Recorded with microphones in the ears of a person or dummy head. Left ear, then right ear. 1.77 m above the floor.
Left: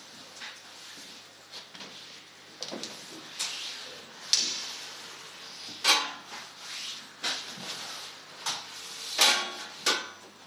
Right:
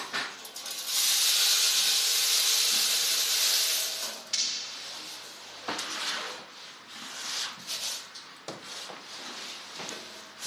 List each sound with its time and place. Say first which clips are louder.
4.3 s breaking glass: left 4 dB; 60° left (ahead or behind), 2 m